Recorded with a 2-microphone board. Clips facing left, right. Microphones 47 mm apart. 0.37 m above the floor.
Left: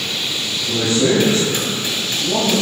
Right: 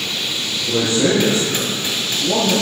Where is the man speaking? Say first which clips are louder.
Even; 45° right (ahead or behind), 6 m.